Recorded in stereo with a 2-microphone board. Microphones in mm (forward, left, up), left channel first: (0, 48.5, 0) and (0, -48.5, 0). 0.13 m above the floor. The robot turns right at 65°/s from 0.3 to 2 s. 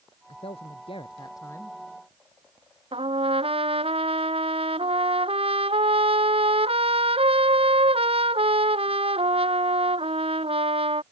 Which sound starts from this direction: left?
A man speaking, at 0.3 s.